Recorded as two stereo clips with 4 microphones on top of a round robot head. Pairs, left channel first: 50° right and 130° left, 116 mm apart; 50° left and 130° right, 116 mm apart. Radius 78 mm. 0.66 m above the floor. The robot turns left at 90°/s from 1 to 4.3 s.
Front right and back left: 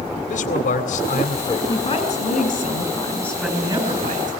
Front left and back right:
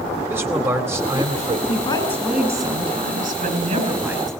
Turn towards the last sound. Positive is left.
turn(degrees=140)